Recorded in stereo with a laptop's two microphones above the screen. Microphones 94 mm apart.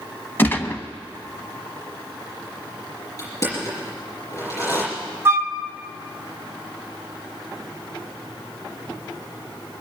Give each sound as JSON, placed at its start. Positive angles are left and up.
{"t": 0.4, "sound": "a gunshot", "side_deg": 25, "distance_m": 0.9}
{"t": 3.2, "sound": "crushing", "side_deg": 35, "distance_m": 6.5}
{"t": 5.2, "sound": "a flute", "side_deg": -25, "distance_m": 0.8}